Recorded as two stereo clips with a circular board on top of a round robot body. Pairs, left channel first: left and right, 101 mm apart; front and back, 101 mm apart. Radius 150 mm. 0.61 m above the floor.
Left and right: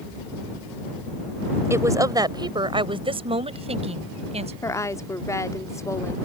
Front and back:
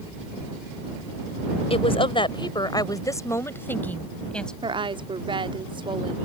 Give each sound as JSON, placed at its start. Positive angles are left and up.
{"t": 1.7, "sound": "a woman speaking", "azimuth_deg": -25}
{"t": 4.6, "sound": "a woman speaking", "azimuth_deg": 150}